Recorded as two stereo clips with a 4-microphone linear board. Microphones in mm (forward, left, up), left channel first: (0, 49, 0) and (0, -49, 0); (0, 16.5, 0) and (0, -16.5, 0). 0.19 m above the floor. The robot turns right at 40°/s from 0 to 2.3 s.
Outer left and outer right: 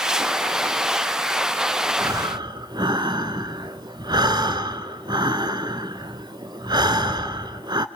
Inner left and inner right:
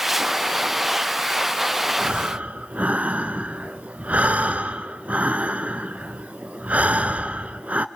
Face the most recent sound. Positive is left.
turn(degrees=-50)  # may be behind; listen again after turning